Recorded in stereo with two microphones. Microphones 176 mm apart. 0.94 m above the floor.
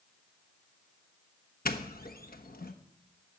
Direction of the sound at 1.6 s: 55° left (ahead or behind).